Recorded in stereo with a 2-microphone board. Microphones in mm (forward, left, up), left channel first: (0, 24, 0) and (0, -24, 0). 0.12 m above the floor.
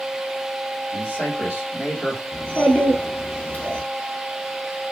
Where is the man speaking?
30° left (ahead or behind), 1.7 m.